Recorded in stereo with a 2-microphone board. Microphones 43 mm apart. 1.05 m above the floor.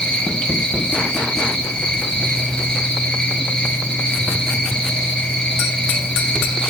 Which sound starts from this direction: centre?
An insect, at 0.0 s.